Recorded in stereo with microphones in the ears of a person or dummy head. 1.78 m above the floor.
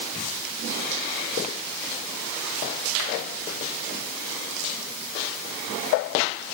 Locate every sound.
Only background noise.